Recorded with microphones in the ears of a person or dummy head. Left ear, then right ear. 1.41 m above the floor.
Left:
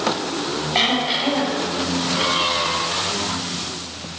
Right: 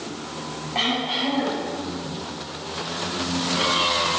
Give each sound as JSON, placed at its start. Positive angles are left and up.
{"t": 0.8, "sound": "throat clearing", "side_deg": 45, "distance_m": 5.5}